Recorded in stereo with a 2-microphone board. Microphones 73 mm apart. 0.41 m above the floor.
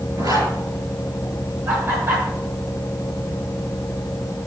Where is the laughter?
40° right (ahead or behind), 1.4 m.